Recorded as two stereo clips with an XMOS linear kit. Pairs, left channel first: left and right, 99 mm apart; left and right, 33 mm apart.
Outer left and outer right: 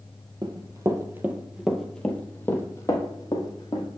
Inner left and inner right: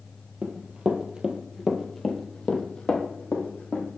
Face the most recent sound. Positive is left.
turn(degrees=45)  # may be behind; listen again after turning